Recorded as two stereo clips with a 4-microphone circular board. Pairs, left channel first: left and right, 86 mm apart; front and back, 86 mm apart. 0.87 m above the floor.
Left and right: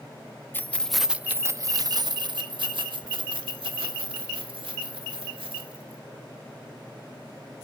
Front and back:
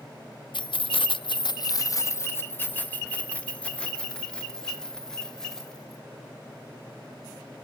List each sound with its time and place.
0.5 s keys jangling: 25° left, 0.5 m; by 6.0 s 85° right, 2.5 m